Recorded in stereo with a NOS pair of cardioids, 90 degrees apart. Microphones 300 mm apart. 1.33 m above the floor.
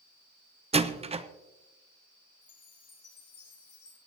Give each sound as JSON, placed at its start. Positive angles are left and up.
{"t": 0.7, "sound": "a door slam", "azimuth_deg": -20, "distance_m": 0.9}
{"t": 2.4, "sound": "a chime", "azimuth_deg": 50, "distance_m": 5.0}